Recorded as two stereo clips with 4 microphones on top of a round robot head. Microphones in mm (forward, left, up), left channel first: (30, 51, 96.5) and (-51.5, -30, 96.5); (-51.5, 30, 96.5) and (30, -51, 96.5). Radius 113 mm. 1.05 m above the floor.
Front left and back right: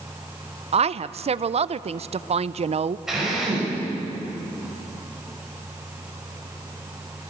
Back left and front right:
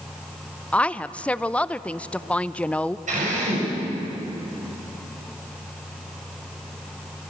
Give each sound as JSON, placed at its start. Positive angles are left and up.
{"t": 0.7, "sound": "a woman speaking", "azimuth_deg": -145, "distance_m": 0.7}
{"t": 3.1, "sound": "a drill", "azimuth_deg": -50, "distance_m": 7.0}